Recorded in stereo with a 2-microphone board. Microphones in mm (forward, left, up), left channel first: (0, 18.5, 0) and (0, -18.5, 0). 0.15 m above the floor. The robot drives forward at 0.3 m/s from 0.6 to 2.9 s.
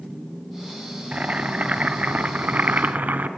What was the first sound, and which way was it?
Boiling, 40° right (ahead or behind).